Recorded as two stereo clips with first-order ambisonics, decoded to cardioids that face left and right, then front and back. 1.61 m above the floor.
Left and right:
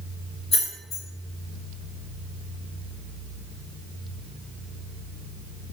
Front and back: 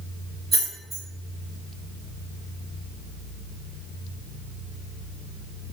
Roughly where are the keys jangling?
Left.